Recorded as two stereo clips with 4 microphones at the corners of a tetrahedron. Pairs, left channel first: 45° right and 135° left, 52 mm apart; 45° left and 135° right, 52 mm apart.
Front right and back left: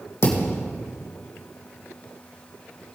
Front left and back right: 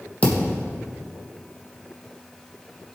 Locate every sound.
0.2 s a thud: 15° right, 3 m